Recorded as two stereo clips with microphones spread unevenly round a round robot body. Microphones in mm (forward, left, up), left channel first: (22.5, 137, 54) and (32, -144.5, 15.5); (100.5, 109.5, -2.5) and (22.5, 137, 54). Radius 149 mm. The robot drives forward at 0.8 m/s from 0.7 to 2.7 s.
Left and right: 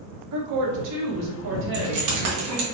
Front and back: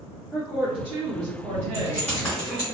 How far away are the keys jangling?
About 1.4 m.